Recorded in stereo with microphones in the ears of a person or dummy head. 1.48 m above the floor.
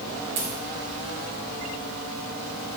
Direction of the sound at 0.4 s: 40° right (ahead or behind).